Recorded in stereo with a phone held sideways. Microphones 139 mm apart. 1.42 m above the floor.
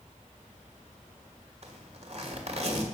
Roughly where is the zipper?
Right.